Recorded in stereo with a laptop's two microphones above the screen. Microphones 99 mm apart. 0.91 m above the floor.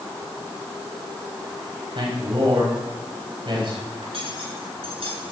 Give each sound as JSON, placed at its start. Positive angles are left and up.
{"t": 1.9, "sound": "a man speaking", "side_deg": -60, "distance_m": 6.5}
{"t": 4.0, "sound": "cutlery clinking", "side_deg": -75, "distance_m": 7.5}